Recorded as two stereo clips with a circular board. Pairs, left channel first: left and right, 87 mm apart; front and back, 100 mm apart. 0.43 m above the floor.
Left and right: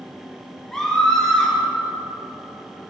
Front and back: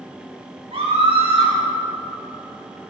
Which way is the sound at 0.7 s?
170° left.